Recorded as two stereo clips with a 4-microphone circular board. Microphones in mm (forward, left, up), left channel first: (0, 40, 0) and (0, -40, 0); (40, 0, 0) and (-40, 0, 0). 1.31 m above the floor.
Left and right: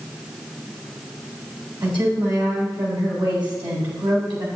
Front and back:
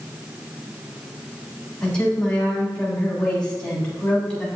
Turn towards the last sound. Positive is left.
turn(degrees=-75)